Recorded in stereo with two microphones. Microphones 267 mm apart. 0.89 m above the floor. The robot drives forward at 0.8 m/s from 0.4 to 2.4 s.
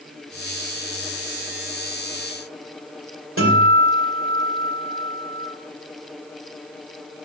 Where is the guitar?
50° right (ahead or behind), 2.5 m.